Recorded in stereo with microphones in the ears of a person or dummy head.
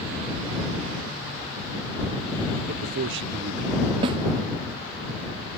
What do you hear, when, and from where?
2.7 s a man speaking: 80° right; by 3.9 s 50° right (ahead or behind)
4.0 s a snare drum: 25° right (ahead or behind)